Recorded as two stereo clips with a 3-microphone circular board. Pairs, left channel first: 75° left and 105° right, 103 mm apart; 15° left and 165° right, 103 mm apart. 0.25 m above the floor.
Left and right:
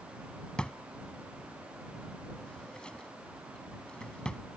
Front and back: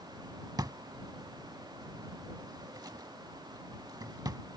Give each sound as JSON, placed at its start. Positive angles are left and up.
{"t": 0.6, "sound": "a drawer", "azimuth_deg": 155}